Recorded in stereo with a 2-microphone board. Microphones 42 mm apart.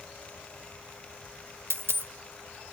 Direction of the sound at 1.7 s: 75° right (ahead or behind).